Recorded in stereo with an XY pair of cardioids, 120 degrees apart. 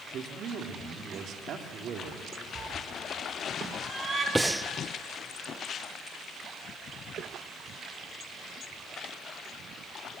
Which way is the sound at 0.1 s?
55° right.